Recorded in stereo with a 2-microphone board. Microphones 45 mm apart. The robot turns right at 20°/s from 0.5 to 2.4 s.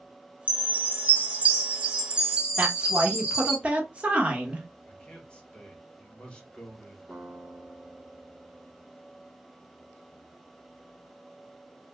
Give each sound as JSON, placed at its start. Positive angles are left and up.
{"t": 0.5, "sound": "a chime", "azimuth_deg": -65, "distance_m": 1.1}
{"t": 2.6, "sound": "a woman speaking", "side_deg": -30, "distance_m": 1.0}
{"t": 4.9, "sound": "a man speaking", "side_deg": 25, "distance_m": 1.2}
{"t": 7.1, "sound": "a guitar", "side_deg": 20, "distance_m": 1.9}